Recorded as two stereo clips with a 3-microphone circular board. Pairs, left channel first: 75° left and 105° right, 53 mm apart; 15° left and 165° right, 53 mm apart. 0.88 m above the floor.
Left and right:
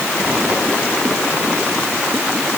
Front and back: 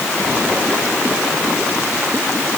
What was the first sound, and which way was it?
Only background noise.